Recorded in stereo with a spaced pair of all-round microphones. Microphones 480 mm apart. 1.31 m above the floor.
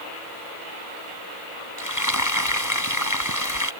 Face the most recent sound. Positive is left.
turn(degrees=35)  # may be behind; listen again after turning